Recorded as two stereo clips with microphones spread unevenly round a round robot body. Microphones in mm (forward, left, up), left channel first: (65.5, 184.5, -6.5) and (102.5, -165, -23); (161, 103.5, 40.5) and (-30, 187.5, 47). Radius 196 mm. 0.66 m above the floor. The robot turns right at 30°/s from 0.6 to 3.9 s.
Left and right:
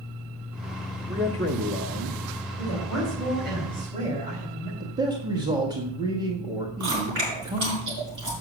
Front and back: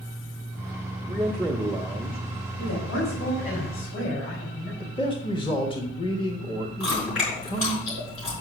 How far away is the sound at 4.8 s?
About 1.1 m.